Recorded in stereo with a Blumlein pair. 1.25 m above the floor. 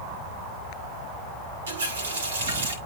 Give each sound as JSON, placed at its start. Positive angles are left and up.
{"t": 1.7, "sound": "a running tap", "azimuth_deg": -65, "distance_m": 2.5}